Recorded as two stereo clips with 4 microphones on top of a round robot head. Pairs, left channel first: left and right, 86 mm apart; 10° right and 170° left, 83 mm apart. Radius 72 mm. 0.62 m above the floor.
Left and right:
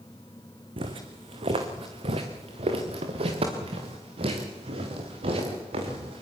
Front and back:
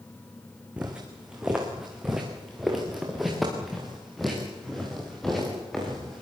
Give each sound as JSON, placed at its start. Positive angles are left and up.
{"t": 0.8, "sound": "footsteps", "azimuth_deg": -110, "distance_m": 3.0}